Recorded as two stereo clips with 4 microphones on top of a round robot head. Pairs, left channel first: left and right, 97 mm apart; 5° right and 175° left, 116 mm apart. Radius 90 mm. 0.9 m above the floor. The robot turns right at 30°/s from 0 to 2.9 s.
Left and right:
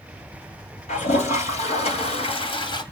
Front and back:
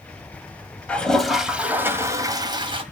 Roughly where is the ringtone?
No ringtone in this recording.